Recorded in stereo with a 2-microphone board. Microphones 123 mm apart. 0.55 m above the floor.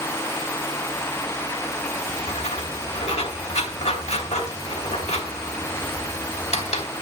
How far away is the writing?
About 3.5 m.